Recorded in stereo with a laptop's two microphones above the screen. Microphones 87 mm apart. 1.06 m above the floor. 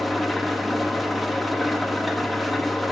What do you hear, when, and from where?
0.0 s an engine running: centre (ahead or behind), 0.7 m